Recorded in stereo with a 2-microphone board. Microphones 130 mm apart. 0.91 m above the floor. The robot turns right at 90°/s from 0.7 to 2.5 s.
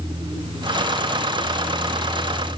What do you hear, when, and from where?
Only background noise.